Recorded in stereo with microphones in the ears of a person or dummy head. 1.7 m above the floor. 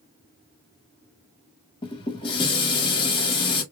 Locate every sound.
1.8 s dishes clattering: 25° left (ahead or behind), 2.5 m